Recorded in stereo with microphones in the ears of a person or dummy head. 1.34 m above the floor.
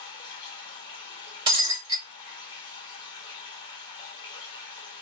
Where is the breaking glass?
25° right (ahead or behind), 1.5 m.